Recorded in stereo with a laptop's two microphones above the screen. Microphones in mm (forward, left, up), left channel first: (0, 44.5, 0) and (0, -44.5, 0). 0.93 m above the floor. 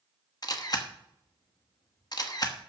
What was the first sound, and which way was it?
A camera shutter, 45° left (ahead or behind).